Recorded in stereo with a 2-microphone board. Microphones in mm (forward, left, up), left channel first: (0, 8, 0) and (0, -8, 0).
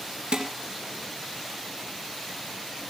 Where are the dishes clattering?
70° right (ahead or behind), 1.9 m.